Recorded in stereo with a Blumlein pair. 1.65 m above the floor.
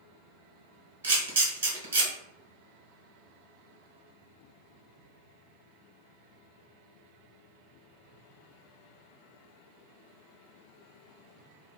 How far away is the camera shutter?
About 0.9 m.